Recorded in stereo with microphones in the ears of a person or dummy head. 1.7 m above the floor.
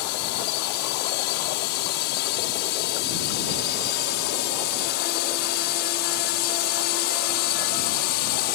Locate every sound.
0.0 s a drone: 65° left (ahead or behind); by 8.6 s 60° left (ahead or behind)